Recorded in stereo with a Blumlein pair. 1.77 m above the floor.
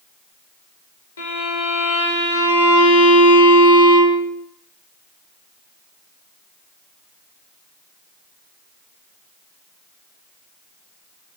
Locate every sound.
1.2 s a violin: 65° left, 0.7 m